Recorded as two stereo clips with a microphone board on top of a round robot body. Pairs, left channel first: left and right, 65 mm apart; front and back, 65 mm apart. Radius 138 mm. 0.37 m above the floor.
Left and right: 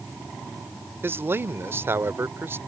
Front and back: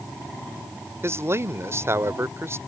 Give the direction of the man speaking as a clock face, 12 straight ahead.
5 o'clock.